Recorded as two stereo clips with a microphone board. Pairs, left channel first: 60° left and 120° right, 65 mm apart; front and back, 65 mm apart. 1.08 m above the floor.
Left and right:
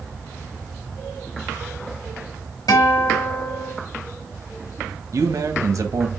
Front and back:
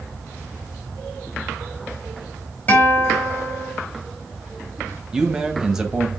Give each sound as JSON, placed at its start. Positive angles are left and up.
{"t": 2.7, "sound": "a guitar", "azimuth_deg": 65, "distance_m": 4.0}
{"t": 5.1, "sound": "a man speaking", "azimuth_deg": -100, "distance_m": 1.5}